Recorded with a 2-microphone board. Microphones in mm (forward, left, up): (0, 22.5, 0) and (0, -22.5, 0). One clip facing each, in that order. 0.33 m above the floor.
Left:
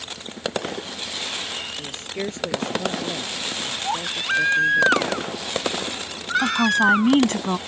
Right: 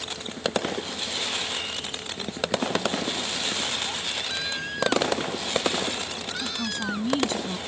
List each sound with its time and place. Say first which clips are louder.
1.8 s a woman speaking: left 4 dB; 70° left (ahead or behind)
3.8 s a baby crying: left 6 dB; 55° left (ahead or behind)
6.4 s a woman speaking: left 14 dB; 60° left (ahead or behind)